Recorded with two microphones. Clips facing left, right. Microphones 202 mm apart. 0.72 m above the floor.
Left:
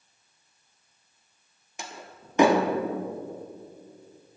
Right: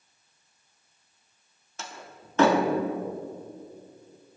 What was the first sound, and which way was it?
A door slam, 15° left (ahead or behind).